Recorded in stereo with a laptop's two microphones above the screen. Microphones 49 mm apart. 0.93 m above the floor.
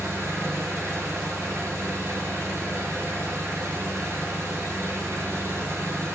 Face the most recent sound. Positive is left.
turn(degrees=-80)